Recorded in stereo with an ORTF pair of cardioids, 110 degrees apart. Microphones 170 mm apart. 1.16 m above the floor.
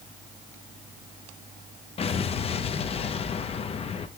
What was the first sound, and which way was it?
An explosion, 35° left.